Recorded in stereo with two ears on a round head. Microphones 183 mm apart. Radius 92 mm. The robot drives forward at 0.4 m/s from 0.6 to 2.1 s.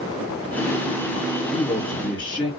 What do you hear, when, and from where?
1.5 s a man speaking: 10° left (ahead or behind), 1.8 m; by 2.5 s 5° left (ahead or behind), 2 m